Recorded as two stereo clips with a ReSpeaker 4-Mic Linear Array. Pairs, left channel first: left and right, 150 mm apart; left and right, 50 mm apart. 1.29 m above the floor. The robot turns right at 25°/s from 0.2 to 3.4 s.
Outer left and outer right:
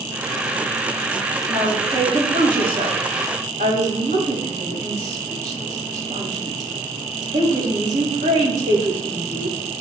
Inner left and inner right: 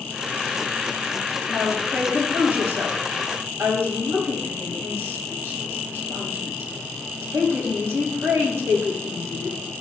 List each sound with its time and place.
1.5 s a woman speaking: 25° right (ahead or behind), 6 m; by 9.6 s 75° right (ahead or behind), 6 m